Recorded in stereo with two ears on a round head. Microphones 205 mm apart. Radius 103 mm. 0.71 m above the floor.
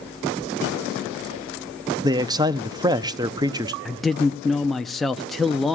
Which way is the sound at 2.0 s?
15° right (ahead or behind).